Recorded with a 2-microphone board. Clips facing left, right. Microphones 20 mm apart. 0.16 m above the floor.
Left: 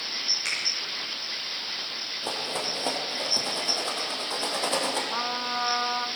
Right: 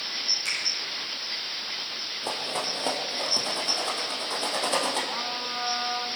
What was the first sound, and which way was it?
A finger snap, 30° left (ahead or behind).